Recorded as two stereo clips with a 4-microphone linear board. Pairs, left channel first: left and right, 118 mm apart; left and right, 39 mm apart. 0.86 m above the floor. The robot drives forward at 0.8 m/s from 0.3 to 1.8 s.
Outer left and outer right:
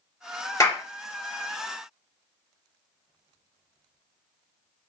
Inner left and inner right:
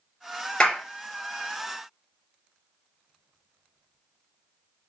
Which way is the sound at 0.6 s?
25° left (ahead or behind).